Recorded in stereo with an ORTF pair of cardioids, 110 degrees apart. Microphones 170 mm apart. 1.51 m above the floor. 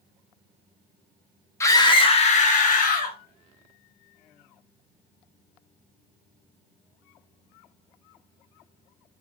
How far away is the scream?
About 0.8 m.